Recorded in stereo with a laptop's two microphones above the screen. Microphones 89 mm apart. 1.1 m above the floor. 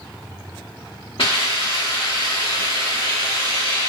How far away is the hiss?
About 1.3 m.